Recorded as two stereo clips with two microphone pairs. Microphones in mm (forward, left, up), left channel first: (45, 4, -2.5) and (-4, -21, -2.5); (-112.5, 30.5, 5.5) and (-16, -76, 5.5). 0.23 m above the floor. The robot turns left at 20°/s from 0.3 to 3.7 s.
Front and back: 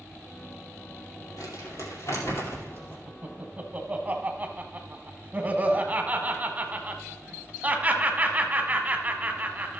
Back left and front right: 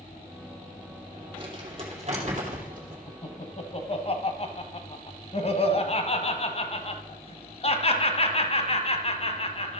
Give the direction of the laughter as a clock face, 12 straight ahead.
6 o'clock.